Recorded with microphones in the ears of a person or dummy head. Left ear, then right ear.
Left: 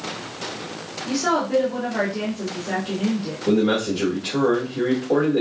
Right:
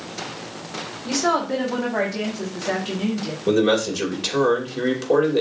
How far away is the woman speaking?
About 1.5 m.